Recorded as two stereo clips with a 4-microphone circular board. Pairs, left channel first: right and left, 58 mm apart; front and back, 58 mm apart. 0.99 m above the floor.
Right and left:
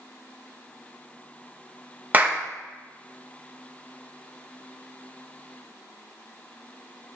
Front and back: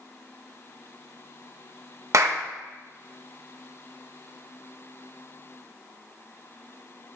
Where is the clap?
150° left, 0.8 m.